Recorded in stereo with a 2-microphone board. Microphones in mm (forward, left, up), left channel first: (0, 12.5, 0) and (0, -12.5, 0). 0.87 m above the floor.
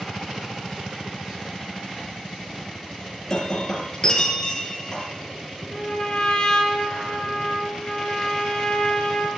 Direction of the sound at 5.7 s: 20° left (ahead or behind).